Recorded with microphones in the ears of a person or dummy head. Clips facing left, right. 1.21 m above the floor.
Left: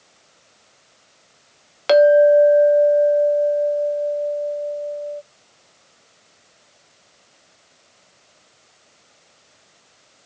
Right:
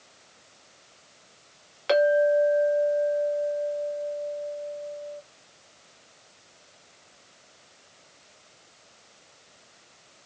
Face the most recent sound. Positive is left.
turn(degrees=60)  # may be behind; listen again after turning